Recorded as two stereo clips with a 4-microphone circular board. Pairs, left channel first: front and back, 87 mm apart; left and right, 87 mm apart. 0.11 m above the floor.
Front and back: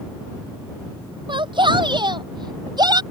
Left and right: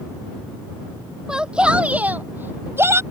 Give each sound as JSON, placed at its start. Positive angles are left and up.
{"t": 1.3, "sound": "a shout", "azimuth_deg": -170}